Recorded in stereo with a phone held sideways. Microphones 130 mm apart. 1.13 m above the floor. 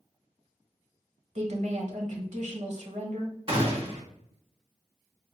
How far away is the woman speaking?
About 1.0 m.